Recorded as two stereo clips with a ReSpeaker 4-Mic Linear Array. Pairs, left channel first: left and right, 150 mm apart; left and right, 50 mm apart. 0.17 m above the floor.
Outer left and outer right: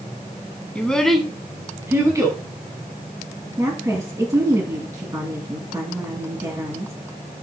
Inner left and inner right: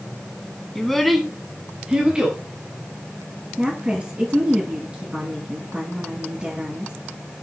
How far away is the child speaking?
About 1.2 m.